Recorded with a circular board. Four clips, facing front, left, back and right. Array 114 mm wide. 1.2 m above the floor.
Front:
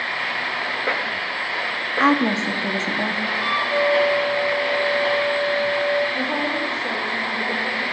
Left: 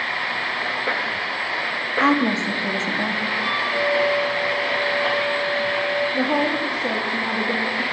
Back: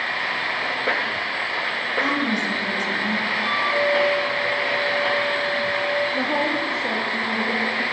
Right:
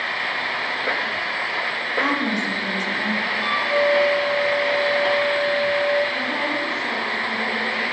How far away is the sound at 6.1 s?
About 2.5 m.